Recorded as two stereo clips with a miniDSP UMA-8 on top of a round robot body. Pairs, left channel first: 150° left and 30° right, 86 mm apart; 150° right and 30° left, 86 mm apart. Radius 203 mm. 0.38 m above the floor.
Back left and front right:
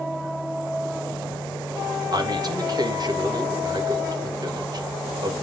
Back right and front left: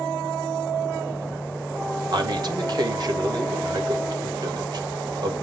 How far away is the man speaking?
About 2.5 m.